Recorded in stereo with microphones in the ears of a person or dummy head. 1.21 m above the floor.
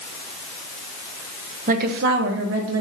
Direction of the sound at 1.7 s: 45° right (ahead or behind).